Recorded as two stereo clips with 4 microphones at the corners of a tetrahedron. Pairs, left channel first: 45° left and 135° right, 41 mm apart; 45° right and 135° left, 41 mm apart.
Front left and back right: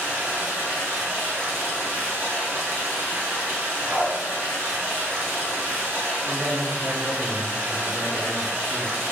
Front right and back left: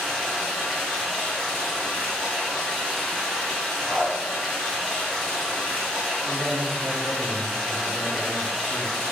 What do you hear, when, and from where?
0.0 s running water: 125° right, 0.9 m
3.9 s a dog barking: 100° right, 1.6 m
6.2 s a man speaking: 140° right, 1.0 m